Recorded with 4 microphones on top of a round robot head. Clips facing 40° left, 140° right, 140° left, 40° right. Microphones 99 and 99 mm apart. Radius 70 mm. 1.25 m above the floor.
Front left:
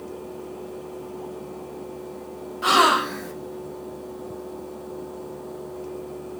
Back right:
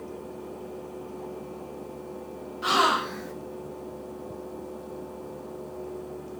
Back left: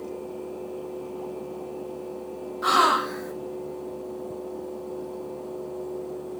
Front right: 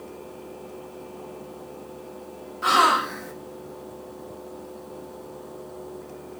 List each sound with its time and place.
2.6 s a gasp: 55° left, 0.6 m